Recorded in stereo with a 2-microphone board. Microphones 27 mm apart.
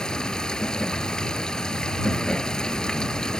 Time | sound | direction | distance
0.0 | running water | 30° left (ahead or behind) | ?